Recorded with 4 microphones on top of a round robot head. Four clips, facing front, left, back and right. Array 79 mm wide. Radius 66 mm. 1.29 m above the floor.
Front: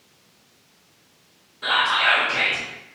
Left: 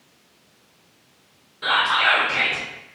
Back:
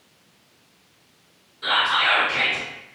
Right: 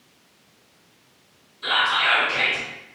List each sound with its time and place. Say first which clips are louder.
1.6 s whispering: left 2 dB, front 1 dB; 65° left, 0.7 m